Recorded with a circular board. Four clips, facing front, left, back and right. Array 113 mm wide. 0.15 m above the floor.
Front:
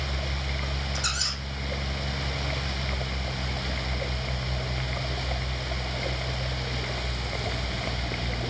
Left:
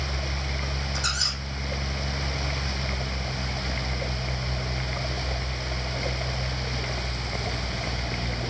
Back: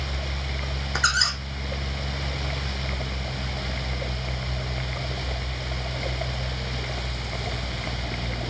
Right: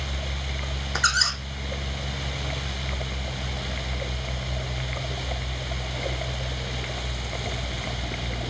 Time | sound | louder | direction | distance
0.9 | a squeak | right 7 dB, back 8 dB | 135° right | 1.8 m